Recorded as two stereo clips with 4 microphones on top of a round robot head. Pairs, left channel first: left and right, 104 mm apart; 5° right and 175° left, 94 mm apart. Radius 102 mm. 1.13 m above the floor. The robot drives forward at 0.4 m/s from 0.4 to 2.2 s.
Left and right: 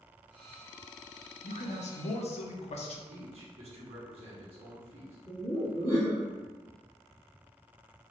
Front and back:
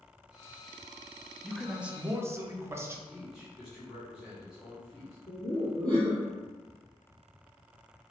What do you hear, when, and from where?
1.4 s a man speaking: 80° left, 0.6 m; by 3.0 s 110° left, 0.6 m
3.1 s a man speaking: 100° right, 1.3 m
5.3 s laughter: 135° left, 1.3 m